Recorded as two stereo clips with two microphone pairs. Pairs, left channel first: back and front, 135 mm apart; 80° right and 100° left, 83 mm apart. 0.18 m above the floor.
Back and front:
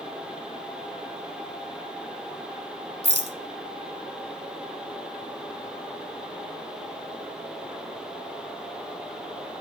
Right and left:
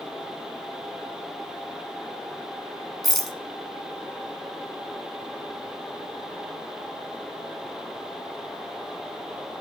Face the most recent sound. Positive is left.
turn(degrees=-165)